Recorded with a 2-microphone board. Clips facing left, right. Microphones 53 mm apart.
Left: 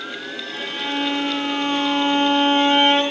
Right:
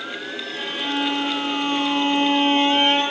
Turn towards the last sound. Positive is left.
turn(degrees=60)  # may be behind; listen again after turning